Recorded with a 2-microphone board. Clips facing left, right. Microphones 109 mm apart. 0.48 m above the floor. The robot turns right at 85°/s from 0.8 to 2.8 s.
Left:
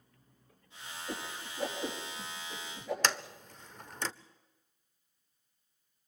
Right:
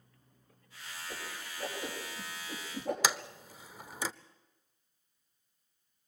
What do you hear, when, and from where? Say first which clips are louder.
1.1 s a whoosh: left 4 dB; 70° left (ahead or behind), 5.5 m; by 2.9 s 75° right (ahead or behind), 5.5 m
3.0 s a sliding door: even; 10° right (ahead or behind), 0.6 m